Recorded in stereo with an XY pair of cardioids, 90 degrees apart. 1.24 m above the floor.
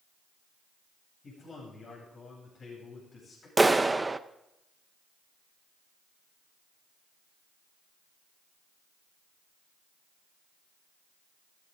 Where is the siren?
I don't hear a siren.